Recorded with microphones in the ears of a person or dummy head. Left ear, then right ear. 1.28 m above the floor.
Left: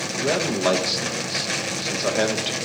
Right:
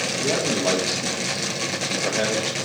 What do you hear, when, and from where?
0.1 s a man speaking: 30° left (ahead or behind), 1.4 m